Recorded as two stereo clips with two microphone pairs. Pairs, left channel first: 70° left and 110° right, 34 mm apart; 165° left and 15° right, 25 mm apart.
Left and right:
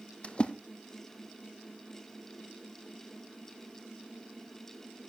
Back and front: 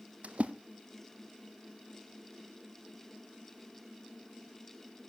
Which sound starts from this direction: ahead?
A splash, at 0.2 s.